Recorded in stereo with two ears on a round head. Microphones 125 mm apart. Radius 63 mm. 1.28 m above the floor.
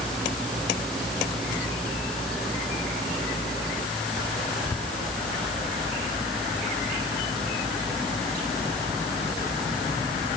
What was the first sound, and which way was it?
Only background noise.